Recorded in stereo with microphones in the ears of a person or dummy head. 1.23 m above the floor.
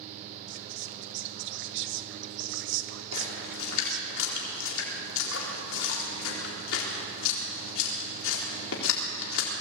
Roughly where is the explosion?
No explosion in this recording.